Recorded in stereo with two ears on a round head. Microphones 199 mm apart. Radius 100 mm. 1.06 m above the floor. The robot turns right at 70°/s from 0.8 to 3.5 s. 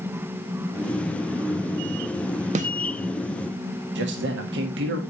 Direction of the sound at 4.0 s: 50° right (ahead or behind).